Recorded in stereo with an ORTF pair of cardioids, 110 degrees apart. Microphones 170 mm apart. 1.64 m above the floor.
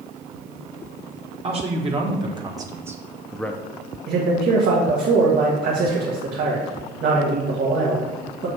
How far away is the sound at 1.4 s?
About 1.7 m.